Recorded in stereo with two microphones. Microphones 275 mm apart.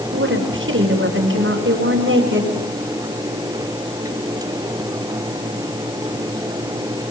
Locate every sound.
0.1 s a woman speaking: 45° right (ahead or behind), 4.5 m